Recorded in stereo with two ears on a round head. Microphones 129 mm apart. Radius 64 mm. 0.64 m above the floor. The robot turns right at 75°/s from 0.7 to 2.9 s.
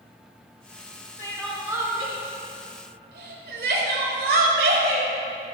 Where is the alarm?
I don't hear an alarm.